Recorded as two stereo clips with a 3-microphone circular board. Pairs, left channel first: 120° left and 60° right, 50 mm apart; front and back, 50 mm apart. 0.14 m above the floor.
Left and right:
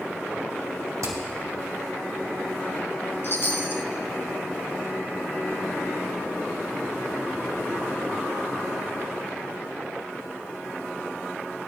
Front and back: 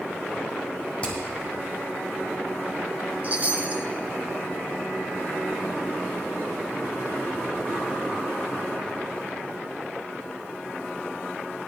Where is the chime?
140° left, 1.0 m.